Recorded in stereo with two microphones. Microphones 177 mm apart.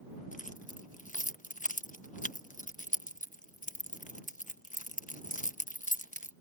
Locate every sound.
0.3 s keys jangling: 45° left (ahead or behind)